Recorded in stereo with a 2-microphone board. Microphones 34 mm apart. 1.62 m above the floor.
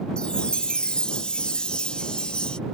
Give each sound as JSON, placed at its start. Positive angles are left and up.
{"t": 0.2, "sound": "a chime", "side_deg": 30}